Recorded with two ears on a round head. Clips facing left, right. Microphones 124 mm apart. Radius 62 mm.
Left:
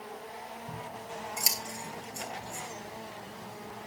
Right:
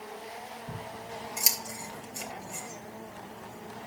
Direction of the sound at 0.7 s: 5° right (ahead or behind).